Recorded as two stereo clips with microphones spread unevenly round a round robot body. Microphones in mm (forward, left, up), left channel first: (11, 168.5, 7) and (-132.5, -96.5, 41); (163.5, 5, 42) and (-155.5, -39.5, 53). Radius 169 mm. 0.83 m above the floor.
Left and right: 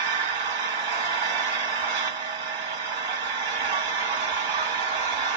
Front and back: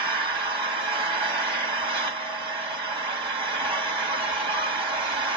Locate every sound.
0.0 s an engine running: 95° right, 2.5 m